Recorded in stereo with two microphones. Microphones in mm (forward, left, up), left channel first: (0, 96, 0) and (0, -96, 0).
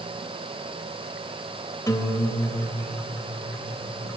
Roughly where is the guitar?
Centre.